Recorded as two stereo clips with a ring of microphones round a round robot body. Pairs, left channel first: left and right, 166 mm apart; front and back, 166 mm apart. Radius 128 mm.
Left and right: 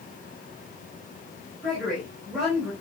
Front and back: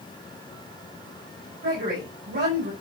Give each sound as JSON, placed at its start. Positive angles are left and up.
{"t": 1.6, "sound": "a woman speaking", "azimuth_deg": 180, "distance_m": 4.0}